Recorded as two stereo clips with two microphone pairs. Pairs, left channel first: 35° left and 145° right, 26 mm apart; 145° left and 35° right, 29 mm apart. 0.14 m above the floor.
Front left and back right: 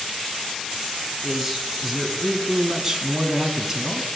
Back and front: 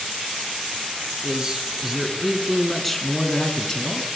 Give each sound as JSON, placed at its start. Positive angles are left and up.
{"t": 1.2, "sound": "a man speaking", "azimuth_deg": -75, "distance_m": 1.6}